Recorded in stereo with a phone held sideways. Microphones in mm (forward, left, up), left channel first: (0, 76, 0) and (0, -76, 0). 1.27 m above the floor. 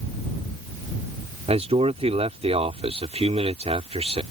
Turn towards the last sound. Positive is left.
turn(degrees=-45)  # may be behind; listen again after turning